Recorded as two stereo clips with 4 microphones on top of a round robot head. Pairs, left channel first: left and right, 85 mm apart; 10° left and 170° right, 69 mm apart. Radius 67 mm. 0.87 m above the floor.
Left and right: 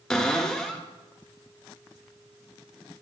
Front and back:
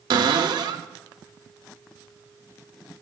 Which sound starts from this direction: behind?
A cupboard door, at 0.1 s.